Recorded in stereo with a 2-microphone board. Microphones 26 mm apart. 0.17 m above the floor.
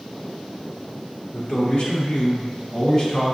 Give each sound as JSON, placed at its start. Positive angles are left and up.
{"t": 1.3, "sound": "a man speaking", "side_deg": 35, "distance_m": 1.7}